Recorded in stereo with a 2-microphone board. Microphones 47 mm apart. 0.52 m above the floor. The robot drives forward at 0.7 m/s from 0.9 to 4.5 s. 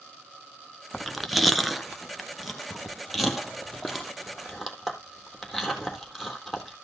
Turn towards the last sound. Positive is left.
turn(degrees=0)  # may be behind; listen again after turning